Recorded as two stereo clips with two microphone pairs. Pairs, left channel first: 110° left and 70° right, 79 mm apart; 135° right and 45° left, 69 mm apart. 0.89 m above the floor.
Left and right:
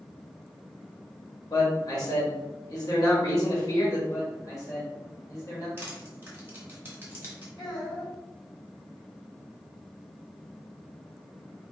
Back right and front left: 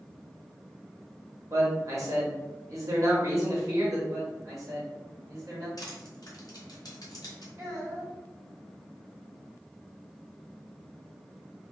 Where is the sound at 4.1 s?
75° left, 1.7 m.